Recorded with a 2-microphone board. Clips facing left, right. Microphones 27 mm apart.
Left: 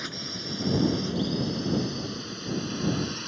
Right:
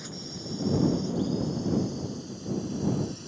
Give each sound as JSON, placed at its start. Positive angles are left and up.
{"t": 0.0, "sound": "a drone", "side_deg": 45}